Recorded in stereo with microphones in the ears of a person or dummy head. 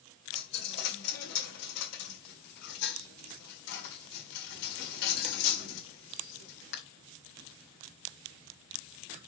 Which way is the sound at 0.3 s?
55° left (ahead or behind).